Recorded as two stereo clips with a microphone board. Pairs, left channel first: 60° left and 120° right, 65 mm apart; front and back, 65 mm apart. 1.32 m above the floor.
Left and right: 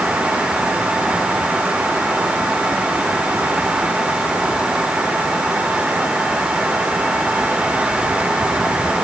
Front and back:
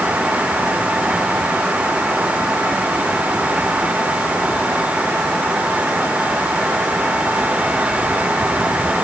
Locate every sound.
Only background noise.